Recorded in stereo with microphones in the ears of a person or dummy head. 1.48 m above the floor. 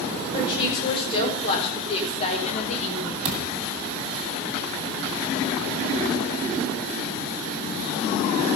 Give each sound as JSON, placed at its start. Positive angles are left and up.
{"t": 0.3, "sound": "a woman speaking", "side_deg": 30, "distance_m": 4.5}
{"t": 3.2, "sound": "a thud", "side_deg": -30, "distance_m": 2.5}